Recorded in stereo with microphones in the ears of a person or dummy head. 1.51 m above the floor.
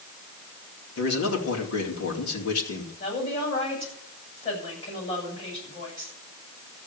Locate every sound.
1.0 s a man speaking: 85° left, 3.5 m
3.0 s a woman speaking: 35° left (ahead or behind), 8.5 m